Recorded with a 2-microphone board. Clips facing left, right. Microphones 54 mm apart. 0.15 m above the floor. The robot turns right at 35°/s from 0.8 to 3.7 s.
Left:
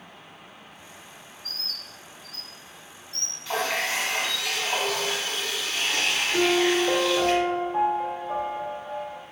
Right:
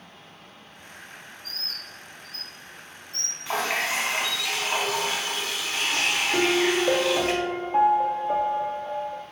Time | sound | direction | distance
1.4 | a bird | 35° right (ahead or behind) | 1.6 m
3.5 | a running tap | 20° right (ahead or behind) | 0.8 m
6.3 | a piano | 45° right (ahead or behind) | 0.7 m